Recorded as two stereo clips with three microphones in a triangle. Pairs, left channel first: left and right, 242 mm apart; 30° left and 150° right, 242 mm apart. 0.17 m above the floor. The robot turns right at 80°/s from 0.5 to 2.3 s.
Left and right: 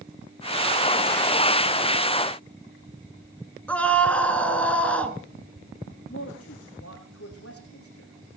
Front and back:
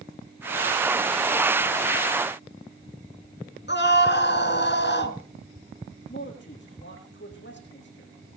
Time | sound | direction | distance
3.7 | a scream | 5° left | 2.5 m
6.1 | a man speaking | 70° left | 7 m